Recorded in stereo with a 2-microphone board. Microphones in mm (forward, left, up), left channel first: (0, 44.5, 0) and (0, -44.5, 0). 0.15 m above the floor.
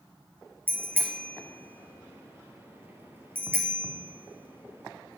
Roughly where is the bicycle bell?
Right.